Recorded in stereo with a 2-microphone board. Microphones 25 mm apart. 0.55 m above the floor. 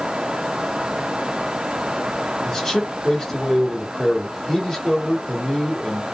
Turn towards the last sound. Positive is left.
turn(degrees=25)  # may be behind; listen again after turning